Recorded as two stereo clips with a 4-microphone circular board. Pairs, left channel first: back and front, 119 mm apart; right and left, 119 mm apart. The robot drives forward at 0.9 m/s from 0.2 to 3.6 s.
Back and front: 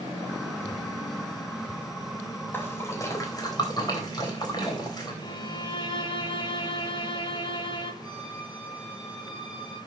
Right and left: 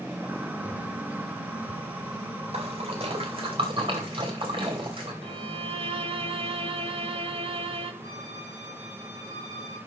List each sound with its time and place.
2.5 s a splash: 110° left, 2.5 m; by 5.1 s 125° left, 3 m
5.2 s a violin: 130° left, 1.2 m
8.0 s a violin: 85° left, 4.5 m